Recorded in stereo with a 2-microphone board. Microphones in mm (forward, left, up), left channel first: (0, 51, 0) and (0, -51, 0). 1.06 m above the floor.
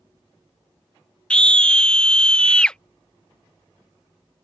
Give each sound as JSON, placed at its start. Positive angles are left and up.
{"t": 1.3, "sound": "a scream", "side_deg": 10}